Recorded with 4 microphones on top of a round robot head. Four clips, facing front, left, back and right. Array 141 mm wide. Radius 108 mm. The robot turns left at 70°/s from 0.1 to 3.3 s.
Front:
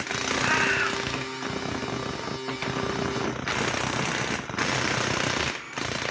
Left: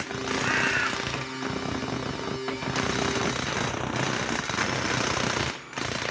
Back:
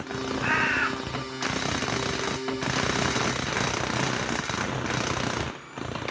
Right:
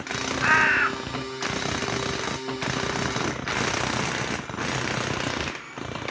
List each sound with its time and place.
0.4 s a bird: 80° right, 2 m; by 0.9 s 115° right, 2 m